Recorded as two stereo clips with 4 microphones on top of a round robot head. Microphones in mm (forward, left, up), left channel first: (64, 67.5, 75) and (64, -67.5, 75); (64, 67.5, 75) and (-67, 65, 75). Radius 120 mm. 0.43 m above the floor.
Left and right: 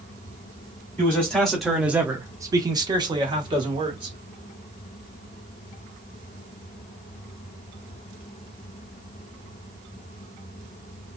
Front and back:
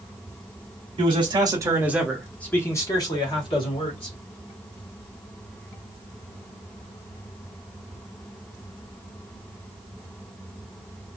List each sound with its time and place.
1.0 s a man speaking: 160° left, 1.0 m; by 4.2 s 40° right, 1.7 m